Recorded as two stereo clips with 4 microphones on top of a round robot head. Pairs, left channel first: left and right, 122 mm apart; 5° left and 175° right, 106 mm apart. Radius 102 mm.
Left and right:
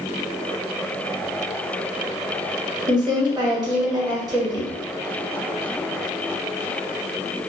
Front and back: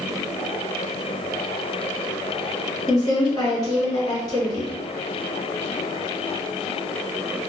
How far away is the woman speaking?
About 1.4 m.